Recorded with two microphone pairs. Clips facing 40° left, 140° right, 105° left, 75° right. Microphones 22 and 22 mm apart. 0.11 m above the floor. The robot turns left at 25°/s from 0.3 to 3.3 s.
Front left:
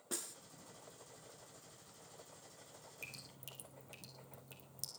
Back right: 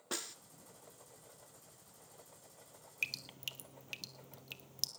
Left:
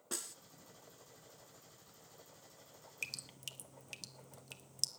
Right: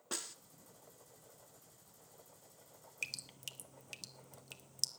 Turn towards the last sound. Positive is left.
turn(degrees=-165)